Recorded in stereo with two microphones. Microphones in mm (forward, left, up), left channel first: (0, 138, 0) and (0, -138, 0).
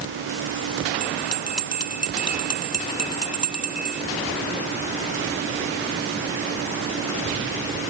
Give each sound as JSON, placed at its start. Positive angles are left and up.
{"t": 1.0, "sound": "a bell", "side_deg": 65}